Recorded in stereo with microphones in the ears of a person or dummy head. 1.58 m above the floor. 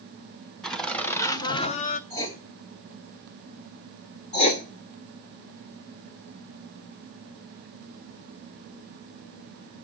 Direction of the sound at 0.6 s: 5° left (ahead or behind).